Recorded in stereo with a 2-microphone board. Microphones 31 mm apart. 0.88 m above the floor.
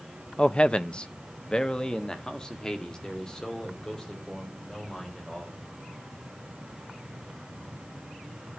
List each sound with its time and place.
0.4 s a man speaking: 30° left (ahead or behind), 0.5 m; by 5.6 s 15° left (ahead or behind), 4 m